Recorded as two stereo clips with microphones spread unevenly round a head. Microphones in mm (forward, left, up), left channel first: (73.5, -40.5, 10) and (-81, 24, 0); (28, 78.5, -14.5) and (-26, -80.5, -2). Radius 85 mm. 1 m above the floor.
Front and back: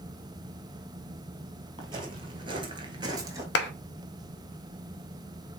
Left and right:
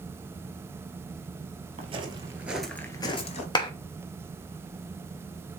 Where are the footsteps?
145° right, 1.4 m; by 3.5 s 90° left, 1.2 m.